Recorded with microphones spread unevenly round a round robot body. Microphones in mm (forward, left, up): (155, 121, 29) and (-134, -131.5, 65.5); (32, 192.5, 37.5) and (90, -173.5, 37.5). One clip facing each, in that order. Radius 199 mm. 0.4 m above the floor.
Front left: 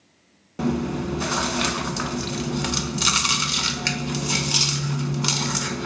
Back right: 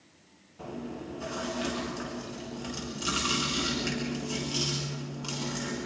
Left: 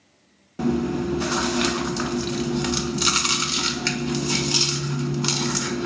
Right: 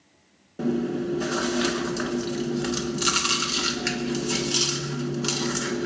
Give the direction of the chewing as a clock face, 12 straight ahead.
11 o'clock.